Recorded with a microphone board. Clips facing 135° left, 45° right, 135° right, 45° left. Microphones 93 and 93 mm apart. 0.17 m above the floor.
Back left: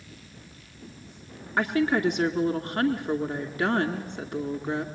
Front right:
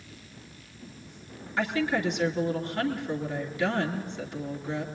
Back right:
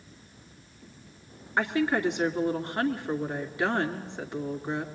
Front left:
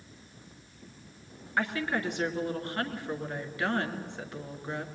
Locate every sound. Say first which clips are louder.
1.6 s a woman speaking: back left 3 dB, back right 5 dB; 160° left, 2.5 m